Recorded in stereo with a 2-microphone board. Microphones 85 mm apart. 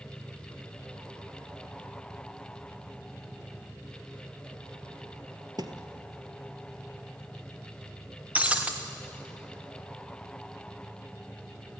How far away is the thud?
About 1.4 m.